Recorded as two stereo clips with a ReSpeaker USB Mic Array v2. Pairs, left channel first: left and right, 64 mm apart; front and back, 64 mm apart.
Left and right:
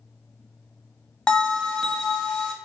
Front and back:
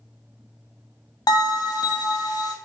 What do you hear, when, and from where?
1.3 s a bell: 10° left, 0.7 m